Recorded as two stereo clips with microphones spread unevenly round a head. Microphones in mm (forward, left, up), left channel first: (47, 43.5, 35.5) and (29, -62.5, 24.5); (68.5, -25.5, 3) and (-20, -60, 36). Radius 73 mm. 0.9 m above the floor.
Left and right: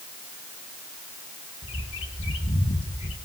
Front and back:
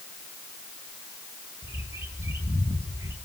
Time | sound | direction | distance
1.6 | a bird | 125° left | 1.8 m